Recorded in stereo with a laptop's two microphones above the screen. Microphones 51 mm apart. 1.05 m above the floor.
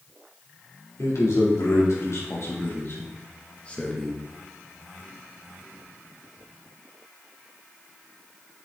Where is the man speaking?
75° left (ahead or behind), 3 m; by 4.2 s centre (ahead or behind), 1.3 m.